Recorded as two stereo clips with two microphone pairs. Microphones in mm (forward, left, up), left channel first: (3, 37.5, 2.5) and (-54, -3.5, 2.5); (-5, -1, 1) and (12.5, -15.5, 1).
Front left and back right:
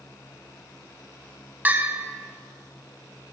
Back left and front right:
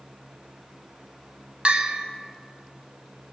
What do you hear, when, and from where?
1.6 s a bell: 80° right, 0.6 m